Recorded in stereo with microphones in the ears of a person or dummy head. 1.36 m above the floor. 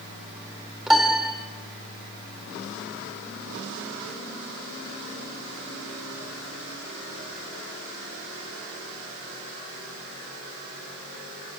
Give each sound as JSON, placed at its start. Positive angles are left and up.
{"t": 0.9, "sound": "a piano", "side_deg": 0, "distance_m": 3.0}